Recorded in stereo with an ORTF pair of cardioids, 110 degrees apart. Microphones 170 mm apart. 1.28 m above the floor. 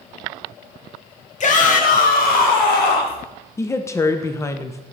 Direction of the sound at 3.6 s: 15° left.